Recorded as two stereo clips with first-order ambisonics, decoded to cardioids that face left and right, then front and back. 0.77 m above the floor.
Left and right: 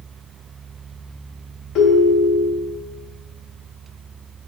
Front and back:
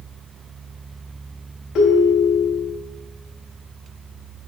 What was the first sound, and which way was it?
A ringtone, 45° left.